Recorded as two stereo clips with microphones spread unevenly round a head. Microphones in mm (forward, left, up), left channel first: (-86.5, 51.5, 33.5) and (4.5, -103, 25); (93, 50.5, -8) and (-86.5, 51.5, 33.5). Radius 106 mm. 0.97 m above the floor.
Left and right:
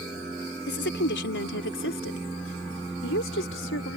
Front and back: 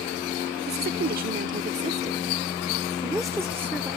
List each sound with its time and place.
0.7 s a woman speaking: 145° left; by 4.0 s 90° left